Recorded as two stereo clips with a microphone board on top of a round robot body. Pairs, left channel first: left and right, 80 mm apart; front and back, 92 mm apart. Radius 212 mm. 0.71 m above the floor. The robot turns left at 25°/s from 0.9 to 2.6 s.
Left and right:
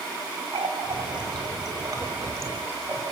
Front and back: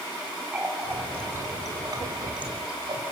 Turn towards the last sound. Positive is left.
turn(degrees=-150)